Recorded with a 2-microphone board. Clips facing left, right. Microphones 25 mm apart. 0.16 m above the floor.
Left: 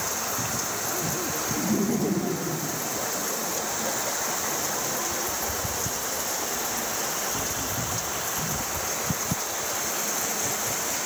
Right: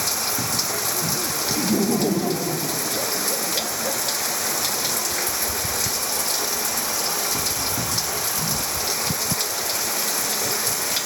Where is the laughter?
35° right (ahead or behind).